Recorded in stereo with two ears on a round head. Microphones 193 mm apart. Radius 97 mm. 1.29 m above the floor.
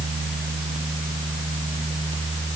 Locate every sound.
Only background noise.